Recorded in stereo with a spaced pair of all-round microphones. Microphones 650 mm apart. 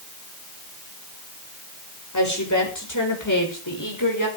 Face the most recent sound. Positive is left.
turn(degrees=30)  # may be behind; listen again after turning